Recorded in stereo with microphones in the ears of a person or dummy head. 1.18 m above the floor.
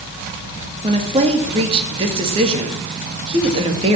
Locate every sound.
0.8 s a woman speaking: 30° right (ahead or behind), 2 m